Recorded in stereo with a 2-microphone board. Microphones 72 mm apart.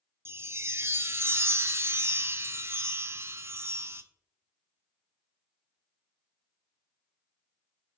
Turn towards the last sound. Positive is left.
turn(degrees=-30)  # may be behind; listen again after turning